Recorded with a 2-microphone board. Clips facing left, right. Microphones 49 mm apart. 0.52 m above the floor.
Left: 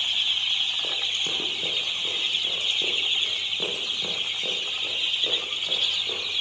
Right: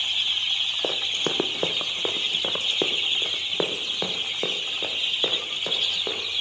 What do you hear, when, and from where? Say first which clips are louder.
0.8 s running footsteps: right 2 dB; 55° right (ahead or behind), 0.9 m; by 6.2 s 75° right (ahead or behind), 4 m